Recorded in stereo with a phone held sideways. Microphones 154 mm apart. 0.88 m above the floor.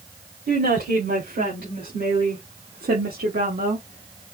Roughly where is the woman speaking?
Right.